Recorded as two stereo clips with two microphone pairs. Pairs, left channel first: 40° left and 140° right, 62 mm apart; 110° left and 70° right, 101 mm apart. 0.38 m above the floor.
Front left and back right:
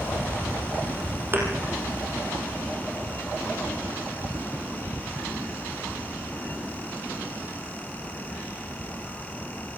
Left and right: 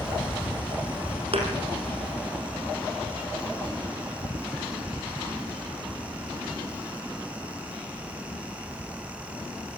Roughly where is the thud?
Right.